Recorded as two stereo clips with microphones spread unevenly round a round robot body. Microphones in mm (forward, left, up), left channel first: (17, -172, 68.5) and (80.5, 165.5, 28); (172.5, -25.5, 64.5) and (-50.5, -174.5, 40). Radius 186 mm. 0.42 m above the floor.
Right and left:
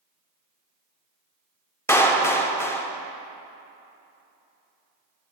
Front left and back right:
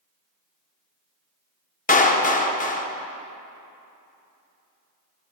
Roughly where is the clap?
Ahead.